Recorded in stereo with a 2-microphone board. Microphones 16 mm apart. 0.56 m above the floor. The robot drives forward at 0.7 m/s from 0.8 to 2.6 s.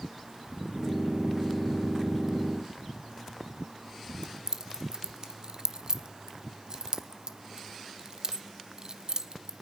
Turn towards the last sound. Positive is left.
turn(degrees=-45)  # may be behind; listen again after turning